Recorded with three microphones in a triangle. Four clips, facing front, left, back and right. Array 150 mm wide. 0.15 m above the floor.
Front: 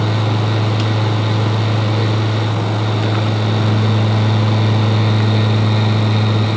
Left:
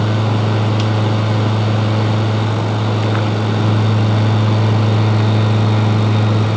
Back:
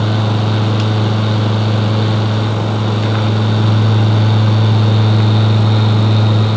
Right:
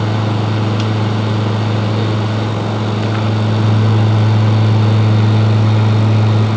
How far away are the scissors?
No scissors in this recording.